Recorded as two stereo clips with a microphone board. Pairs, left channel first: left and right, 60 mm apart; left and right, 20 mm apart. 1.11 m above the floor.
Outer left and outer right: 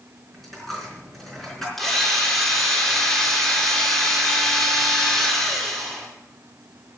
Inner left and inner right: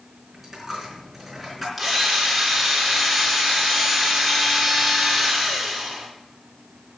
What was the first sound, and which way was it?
A dropped coin, 5° left (ahead or behind).